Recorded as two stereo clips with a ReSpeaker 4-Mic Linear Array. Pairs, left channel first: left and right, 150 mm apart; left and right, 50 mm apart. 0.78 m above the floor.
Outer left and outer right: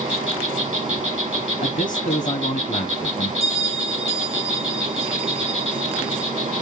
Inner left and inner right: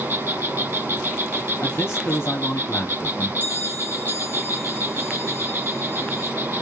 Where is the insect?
50° right (ahead or behind), 1.5 m.